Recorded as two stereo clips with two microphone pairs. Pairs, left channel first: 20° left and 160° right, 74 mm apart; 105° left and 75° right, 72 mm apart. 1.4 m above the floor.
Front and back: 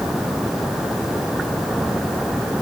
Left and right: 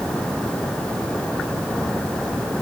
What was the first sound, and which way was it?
Only background noise.